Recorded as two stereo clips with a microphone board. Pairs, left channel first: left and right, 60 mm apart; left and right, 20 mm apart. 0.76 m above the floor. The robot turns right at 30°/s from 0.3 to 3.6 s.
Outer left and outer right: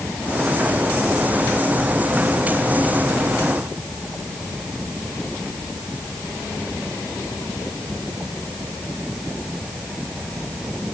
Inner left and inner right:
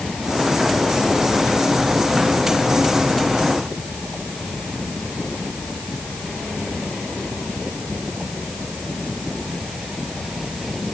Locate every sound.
Only background noise.